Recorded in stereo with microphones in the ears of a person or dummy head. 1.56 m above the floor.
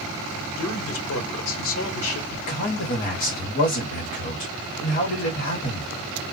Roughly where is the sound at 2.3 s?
Left.